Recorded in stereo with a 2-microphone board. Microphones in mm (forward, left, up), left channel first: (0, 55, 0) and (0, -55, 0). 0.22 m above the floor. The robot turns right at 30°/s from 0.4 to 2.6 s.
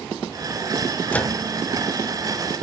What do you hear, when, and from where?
1.1 s a microwave: 15° left (ahead or behind), 1.3 m; by 1.4 s 10° left (ahead or behind), 1.3 m